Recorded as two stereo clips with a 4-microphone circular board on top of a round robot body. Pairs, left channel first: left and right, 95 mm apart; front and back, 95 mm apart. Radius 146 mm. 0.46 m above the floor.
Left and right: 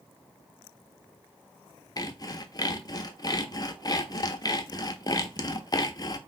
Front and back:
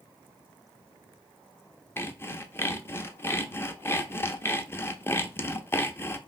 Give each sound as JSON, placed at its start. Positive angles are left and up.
{"t": 2.0, "sound": "sawing", "azimuth_deg": 60, "distance_m": 0.6}